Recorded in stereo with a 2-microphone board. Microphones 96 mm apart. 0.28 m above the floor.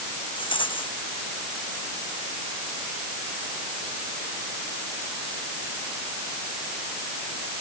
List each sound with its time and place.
0.4 s a rattle: 60° left (ahead or behind)